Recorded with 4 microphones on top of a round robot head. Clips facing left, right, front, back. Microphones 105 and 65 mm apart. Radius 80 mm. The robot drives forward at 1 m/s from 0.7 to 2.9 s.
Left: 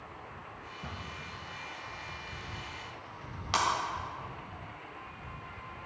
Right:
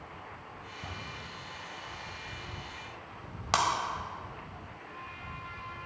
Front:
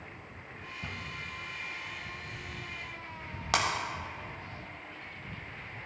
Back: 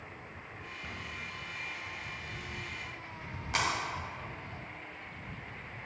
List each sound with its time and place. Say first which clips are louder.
0.8 s a cupboard door: even, front 2 dB; 15° right, 2.5 m
3.5 s breaking glass: right 2 dB, front 3 dB; 35° right, 1.5 m